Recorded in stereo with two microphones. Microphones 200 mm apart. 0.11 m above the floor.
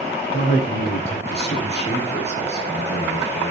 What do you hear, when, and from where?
0.3 s a man speaking: 60° left (ahead or behind), 5 m